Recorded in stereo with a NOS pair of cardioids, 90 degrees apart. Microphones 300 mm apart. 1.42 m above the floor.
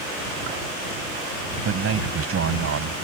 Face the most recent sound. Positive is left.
turn(degrees=-50)